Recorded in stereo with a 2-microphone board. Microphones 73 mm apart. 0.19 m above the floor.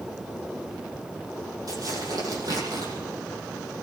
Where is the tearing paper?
55° right (ahead or behind), 9.5 m.